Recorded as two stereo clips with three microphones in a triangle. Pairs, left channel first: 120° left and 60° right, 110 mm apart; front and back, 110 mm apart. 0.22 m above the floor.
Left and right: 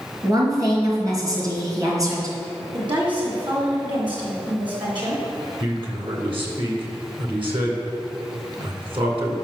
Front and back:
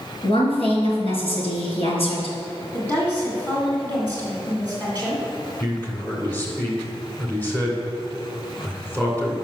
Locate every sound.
0.2 s a woman speaking: 10° right, 3 m
2.7 s a woman speaking: 65° right, 1.9 m
5.6 s a man speaking: 70° right, 2 m